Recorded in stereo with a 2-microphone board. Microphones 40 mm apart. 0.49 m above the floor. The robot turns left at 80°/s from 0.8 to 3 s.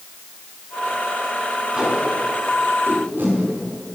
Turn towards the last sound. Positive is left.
turn(degrees=-60)  # may be behind; listen again after turning